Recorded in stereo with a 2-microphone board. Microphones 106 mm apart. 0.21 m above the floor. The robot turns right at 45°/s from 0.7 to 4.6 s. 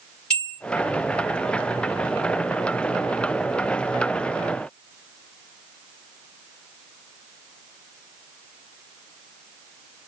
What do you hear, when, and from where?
0.3 s a bell: 5° left (ahead or behind), 4 m